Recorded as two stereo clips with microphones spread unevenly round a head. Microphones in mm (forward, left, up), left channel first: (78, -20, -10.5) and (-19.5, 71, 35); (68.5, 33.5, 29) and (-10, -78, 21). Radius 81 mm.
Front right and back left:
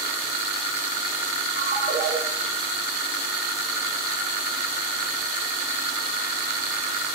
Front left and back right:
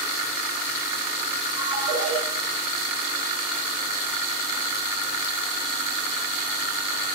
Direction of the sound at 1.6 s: 65° left.